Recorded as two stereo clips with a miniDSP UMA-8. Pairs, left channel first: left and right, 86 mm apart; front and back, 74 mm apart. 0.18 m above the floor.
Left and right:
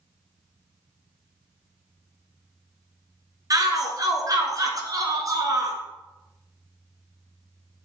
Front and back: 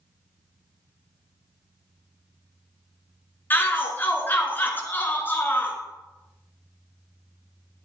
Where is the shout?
55° right, 2 m.